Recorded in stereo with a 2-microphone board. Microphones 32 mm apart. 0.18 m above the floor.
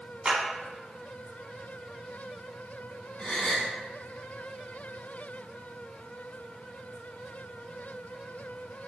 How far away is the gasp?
About 1.2 m.